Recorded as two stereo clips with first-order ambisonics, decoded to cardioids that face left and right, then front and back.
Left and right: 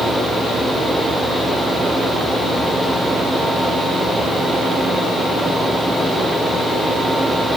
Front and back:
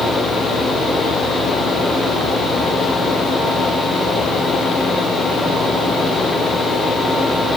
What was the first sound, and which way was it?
Only background noise.